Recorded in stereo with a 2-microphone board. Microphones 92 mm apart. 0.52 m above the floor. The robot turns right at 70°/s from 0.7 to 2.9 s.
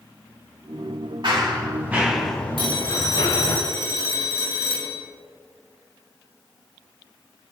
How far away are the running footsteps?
About 4.5 m.